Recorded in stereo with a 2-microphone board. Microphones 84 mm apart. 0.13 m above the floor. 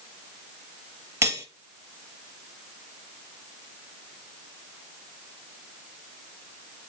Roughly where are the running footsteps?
I don't hear running footsteps.